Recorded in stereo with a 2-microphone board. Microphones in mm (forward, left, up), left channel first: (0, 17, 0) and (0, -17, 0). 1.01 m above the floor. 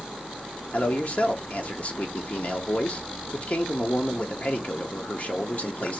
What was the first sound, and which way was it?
A man speaking, 40° left (ahead or behind).